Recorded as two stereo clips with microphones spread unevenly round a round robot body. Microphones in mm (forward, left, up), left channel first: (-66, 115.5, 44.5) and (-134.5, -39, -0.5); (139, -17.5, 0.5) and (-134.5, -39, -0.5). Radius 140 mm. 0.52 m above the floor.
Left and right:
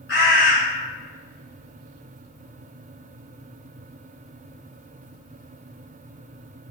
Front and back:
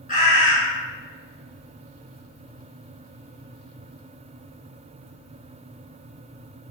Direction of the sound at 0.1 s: 70° left.